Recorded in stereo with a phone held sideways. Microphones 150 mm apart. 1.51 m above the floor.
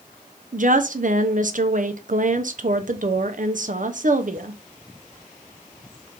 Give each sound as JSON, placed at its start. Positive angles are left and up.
{"t": 0.5, "sound": "a woman speaking", "side_deg": -60, "distance_m": 0.6}